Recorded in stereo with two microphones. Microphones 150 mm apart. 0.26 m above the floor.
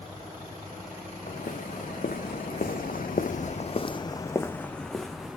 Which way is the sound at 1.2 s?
60° left (ahead or behind).